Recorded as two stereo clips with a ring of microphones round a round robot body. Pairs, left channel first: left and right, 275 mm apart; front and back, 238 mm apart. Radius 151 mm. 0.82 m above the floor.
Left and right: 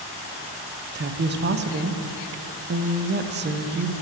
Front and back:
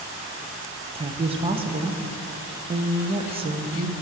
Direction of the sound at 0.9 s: 125° right.